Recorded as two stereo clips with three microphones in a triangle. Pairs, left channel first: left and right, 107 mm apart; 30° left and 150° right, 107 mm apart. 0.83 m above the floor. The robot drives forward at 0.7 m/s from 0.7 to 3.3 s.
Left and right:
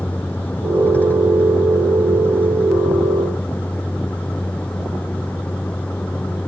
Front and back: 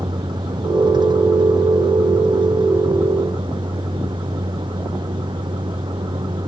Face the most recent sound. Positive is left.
turn(degrees=165)